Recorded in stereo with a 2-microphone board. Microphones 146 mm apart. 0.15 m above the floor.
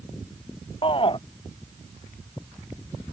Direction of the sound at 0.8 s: 35° left (ahead or behind).